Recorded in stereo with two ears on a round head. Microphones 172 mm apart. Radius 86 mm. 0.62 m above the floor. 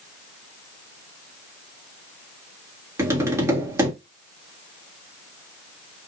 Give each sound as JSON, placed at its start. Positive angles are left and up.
{"t": 3.0, "sound": "tapping", "side_deg": -15, "distance_m": 1.3}